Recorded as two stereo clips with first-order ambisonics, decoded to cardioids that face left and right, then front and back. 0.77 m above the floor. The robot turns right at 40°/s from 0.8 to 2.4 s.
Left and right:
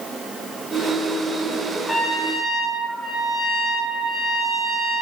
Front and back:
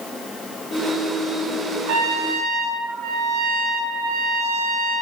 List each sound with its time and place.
1.9 s a trumpet: 170° left, 0.5 m; by 5.0 s 170° right, 0.5 m